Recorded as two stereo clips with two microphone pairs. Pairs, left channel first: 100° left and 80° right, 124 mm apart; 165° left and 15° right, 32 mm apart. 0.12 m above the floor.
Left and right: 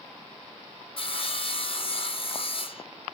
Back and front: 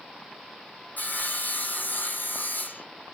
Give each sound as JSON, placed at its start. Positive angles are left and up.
{"t": 1.0, "sound": "sawing", "azimuth_deg": 140, "distance_m": 1.3}